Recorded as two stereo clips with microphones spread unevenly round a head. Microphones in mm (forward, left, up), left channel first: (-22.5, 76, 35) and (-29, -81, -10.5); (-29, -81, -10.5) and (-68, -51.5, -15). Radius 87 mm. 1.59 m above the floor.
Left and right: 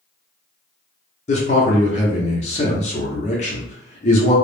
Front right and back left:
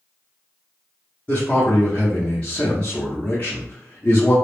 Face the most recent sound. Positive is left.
turn(degrees=40)